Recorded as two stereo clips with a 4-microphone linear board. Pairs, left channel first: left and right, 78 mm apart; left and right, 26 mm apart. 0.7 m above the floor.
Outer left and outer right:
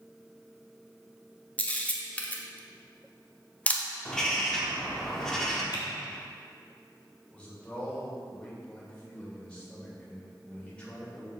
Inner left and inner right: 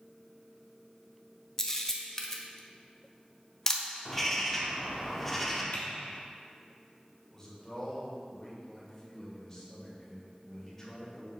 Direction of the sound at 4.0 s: 5° left (ahead or behind).